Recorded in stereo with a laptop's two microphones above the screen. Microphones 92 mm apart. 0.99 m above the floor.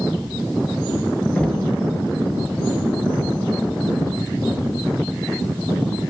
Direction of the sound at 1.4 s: 10° left (ahead or behind).